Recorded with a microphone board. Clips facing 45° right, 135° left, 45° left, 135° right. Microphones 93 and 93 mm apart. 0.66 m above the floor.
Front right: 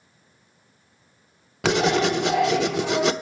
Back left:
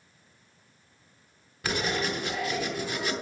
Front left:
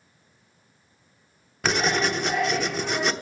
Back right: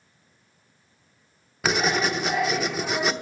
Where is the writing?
50° right, 0.8 m.